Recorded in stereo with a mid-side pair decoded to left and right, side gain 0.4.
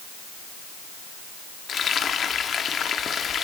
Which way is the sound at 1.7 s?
55° left.